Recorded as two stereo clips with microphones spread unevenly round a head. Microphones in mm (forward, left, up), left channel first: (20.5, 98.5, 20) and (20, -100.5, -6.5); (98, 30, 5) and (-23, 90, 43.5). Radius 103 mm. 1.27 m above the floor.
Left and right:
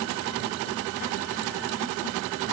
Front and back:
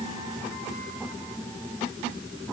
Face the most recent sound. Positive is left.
No sound to turn to.